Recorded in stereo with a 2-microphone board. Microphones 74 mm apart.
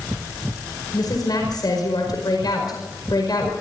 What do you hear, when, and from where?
0.9 s a woman speaking: 60° left (ahead or behind), 5 m